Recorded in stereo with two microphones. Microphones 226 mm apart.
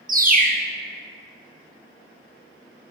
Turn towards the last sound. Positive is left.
turn(degrees=-40)  # may be behind; listen again after turning